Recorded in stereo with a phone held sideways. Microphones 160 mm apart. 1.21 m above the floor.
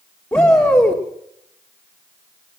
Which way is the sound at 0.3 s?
15° left (ahead or behind).